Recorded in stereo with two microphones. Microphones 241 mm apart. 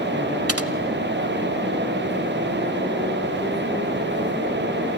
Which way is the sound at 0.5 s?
75° right (ahead or behind).